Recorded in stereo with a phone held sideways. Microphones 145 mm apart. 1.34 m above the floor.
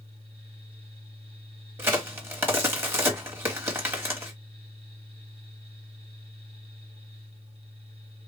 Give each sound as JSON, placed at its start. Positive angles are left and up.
{"t": 0.0, "sound": "a fan", "side_deg": -40, "distance_m": 2.0}
{"t": 1.8, "sound": "a crack", "side_deg": -15, "distance_m": 1.4}